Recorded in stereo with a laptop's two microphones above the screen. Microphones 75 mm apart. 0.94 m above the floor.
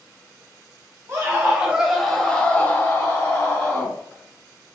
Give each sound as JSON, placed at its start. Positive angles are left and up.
{"t": 1.1, "sound": "a scream", "side_deg": -35, "distance_m": 1.1}